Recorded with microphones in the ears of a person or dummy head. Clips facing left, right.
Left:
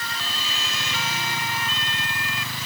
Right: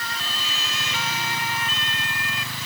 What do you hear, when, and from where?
Only background noise.